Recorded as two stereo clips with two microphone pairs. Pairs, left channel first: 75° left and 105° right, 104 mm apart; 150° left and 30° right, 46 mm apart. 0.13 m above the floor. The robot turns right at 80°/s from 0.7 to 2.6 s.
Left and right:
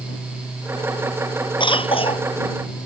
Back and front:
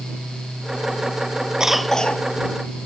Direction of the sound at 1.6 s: 45° left.